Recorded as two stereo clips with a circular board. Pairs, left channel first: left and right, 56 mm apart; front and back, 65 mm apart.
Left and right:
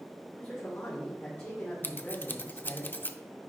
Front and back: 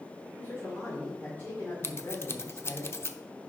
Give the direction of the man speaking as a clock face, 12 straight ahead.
10 o'clock.